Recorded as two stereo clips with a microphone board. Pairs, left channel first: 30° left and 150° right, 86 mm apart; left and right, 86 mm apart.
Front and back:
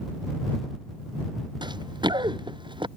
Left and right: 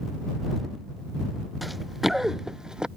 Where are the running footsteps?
Straight behind; by 2.9 s 170° right.